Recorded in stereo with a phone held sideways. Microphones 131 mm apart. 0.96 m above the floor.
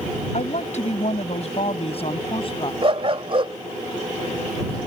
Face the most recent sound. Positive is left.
turn(degrees=-45)  # may be behind; listen again after turning